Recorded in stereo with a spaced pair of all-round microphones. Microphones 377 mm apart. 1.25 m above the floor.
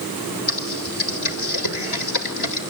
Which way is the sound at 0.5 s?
80° left.